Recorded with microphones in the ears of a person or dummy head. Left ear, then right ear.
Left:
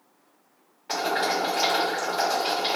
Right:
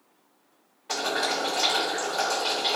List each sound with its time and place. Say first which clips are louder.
0.9 s boiling: left 2 dB; 5° right (ahead or behind), 0.9 m